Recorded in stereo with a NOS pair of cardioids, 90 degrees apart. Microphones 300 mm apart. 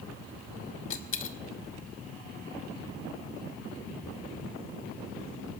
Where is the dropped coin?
45° left, 1.7 m.